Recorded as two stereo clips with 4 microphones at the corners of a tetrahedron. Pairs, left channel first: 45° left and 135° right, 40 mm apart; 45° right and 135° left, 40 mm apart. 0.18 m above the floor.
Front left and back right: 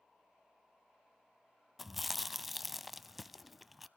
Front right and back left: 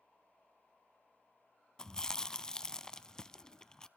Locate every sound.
1.8 s chewing: 55° right, 0.6 m